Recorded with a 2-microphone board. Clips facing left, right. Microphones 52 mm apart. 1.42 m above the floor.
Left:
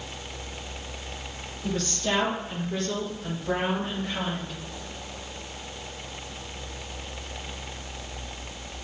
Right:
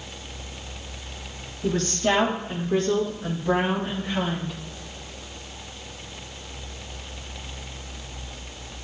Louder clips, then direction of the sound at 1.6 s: Right 6 dB; 55° right (ahead or behind).